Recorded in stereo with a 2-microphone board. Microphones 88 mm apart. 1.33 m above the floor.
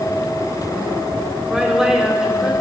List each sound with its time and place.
1.5 s a woman speaking: 5° right (ahead or behind), 5 m